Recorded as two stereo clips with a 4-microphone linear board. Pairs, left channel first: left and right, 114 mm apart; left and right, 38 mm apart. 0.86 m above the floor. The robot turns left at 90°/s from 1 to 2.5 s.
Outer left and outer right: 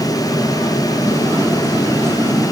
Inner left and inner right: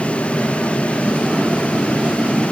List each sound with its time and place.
Only background noise.